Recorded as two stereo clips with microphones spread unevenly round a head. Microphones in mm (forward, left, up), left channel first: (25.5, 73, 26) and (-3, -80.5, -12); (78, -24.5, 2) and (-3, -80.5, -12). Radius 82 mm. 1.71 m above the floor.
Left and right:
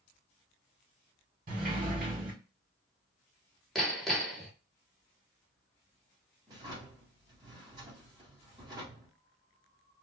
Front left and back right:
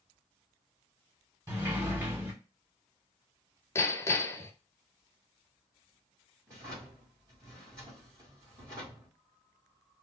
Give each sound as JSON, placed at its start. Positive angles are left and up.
{"t": 1.5, "sound": "a sliding door", "azimuth_deg": -100, "distance_m": 1.5}
{"t": 3.8, "sound": "hammering", "azimuth_deg": 15, "distance_m": 0.6}
{"t": 6.5, "sound": "a drawer", "azimuth_deg": -170, "distance_m": 1.3}